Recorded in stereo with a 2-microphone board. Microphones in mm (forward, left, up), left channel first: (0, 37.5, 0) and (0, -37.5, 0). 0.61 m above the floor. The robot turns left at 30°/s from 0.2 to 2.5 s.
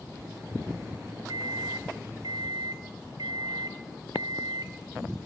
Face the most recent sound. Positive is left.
turn(degrees=-110)